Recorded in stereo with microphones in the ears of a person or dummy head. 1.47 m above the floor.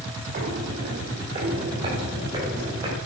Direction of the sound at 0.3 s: 45° right (ahead or behind).